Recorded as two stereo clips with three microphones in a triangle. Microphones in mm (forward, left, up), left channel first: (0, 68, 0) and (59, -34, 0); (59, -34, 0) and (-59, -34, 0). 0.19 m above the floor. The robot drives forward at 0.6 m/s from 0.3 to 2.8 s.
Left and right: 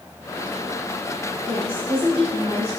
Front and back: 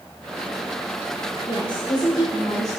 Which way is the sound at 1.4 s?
20° right.